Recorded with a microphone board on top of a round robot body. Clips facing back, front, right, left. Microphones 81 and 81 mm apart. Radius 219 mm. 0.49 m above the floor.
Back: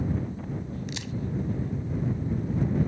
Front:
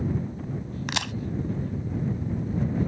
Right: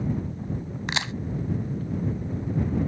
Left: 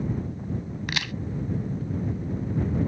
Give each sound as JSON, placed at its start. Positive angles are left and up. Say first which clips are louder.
{"t": 0.9, "sound": "a crack", "louder": "front 5 dB, right 3 dB", "azimuth_deg": -25}